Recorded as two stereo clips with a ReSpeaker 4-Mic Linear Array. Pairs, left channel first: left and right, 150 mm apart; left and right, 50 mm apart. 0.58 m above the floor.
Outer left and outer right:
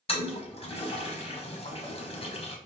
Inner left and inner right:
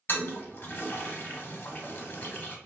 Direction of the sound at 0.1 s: 40° left (ahead or behind).